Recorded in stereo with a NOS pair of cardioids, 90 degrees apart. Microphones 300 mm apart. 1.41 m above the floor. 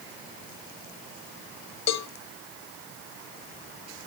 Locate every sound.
1.9 s a cowbell: 60° left, 0.8 m